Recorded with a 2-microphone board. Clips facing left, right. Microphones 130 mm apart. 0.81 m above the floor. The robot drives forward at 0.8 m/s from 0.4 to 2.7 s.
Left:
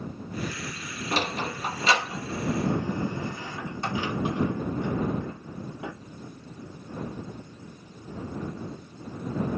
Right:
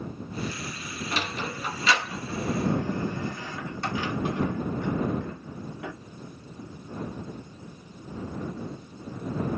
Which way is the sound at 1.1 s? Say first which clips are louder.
Left 4 dB; 40° left (ahead or behind).